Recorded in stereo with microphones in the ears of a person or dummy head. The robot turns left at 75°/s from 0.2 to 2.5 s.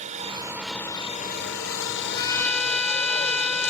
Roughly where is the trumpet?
Ahead left.